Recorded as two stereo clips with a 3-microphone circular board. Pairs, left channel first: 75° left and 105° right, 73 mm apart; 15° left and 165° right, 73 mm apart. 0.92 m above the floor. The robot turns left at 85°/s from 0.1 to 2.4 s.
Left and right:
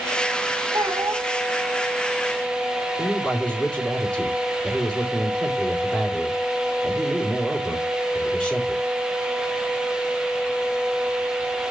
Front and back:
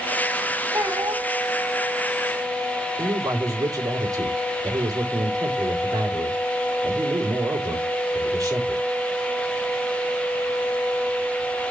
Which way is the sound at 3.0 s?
155° left.